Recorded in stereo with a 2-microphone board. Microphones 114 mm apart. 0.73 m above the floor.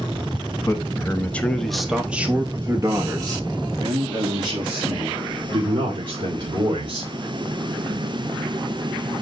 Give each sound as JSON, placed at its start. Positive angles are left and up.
{"t": 0.7, "sound": "a man speaking", "side_deg": 25, "distance_m": 1.1}